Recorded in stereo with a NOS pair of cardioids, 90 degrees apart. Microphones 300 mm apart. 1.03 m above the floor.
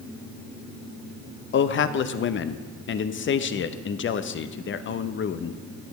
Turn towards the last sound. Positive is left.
turn(degrees=40)